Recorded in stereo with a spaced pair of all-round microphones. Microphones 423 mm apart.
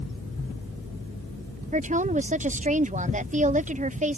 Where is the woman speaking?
20° right (ahead or behind).